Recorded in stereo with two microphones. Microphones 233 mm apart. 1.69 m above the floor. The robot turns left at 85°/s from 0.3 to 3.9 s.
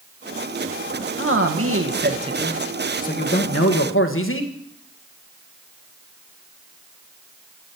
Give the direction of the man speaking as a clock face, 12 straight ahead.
2 o'clock.